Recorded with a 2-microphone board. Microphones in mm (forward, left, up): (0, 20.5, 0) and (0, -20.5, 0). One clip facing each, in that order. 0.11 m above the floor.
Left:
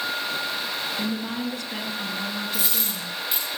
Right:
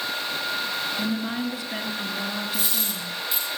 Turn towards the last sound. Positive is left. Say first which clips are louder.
# even
turn(degrees=25)  # may be behind; listen again after turning